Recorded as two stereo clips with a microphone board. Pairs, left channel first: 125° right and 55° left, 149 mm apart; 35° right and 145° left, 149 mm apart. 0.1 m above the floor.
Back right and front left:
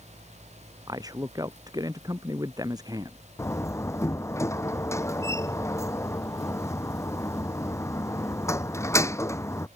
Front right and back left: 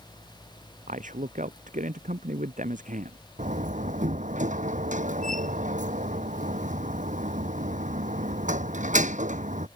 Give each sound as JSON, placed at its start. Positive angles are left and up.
{"t": 0.9, "sound": "a man speaking", "azimuth_deg": 120}
{"t": 3.4, "sound": "a door slam", "azimuth_deg": 165}